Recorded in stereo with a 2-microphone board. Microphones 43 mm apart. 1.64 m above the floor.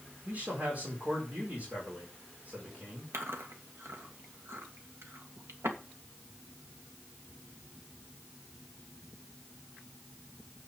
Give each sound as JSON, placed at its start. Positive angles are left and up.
{"t": 0.2, "sound": "a man speaking", "side_deg": -35, "distance_m": 4.5}
{"t": 3.1, "sound": "chewing", "side_deg": -75, "distance_m": 2.0}